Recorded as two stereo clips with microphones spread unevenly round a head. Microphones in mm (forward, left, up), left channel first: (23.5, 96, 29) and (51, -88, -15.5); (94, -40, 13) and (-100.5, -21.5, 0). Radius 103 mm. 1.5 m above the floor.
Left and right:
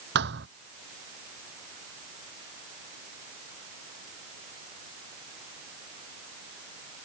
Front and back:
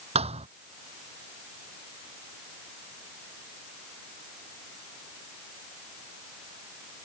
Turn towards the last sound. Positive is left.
turn(degrees=-125)